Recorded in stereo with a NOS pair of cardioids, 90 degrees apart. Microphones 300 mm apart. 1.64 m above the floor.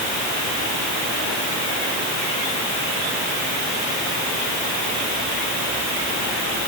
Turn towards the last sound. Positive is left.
No sound to turn to.